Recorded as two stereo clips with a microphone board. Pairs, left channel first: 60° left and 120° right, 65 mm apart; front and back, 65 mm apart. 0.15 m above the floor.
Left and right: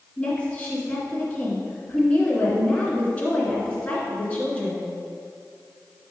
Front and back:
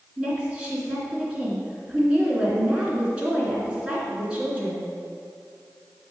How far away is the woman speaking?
About 2.0 m.